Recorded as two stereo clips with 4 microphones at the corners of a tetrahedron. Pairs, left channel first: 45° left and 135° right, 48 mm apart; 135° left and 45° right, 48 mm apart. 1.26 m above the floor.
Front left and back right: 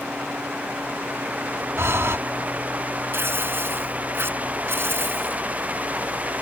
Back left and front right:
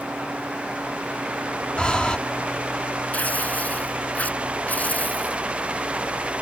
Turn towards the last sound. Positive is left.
turn(degrees=-170)